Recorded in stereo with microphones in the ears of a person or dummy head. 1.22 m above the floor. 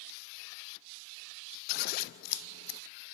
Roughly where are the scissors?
Left.